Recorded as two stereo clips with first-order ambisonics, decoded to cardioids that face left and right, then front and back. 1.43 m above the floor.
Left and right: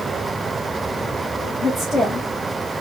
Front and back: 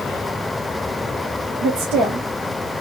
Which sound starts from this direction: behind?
A woman speaking, at 1.6 s.